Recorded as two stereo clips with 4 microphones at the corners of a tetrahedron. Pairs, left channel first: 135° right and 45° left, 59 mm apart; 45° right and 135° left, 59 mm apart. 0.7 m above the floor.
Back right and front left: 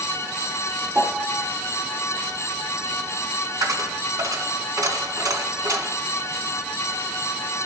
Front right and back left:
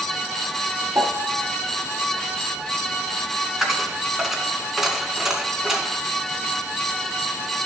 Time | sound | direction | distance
0.9 | a piano | 115° left | 1.2 m
3.6 | a dropped coin | 55° left | 2.0 m